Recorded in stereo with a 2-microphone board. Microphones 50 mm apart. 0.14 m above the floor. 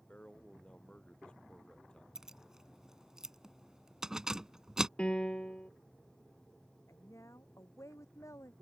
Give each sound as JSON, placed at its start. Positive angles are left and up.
{"t": 0.1, "sound": "a man speaking", "side_deg": 25}
{"t": 2.1, "sound": "keys jangling", "side_deg": -15}
{"t": 5.0, "sound": "a piano", "side_deg": 20}
{"t": 6.9, "sound": "a woman speaking", "side_deg": 80}